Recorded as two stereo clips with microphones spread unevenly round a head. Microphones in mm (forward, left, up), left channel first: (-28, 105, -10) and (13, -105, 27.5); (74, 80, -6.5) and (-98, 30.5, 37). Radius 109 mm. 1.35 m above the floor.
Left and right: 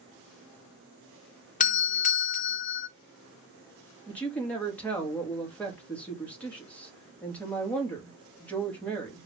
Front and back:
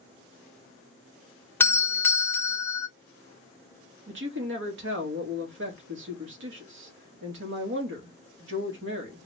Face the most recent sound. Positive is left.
turn(degrees=-175)